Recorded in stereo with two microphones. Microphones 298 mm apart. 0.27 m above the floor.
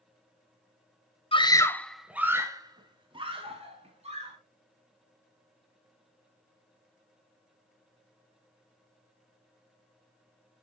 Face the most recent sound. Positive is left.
turn(degrees=-20)  # may be behind; listen again after turning